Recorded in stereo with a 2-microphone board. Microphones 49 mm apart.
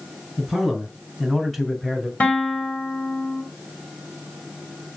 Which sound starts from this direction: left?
A guitar, at 2.2 s.